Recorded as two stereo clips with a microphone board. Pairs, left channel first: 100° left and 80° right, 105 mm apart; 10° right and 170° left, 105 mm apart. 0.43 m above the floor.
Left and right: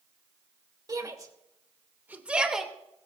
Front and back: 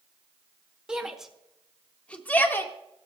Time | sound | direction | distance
0.9 | a shout | 110° right | 1.6 m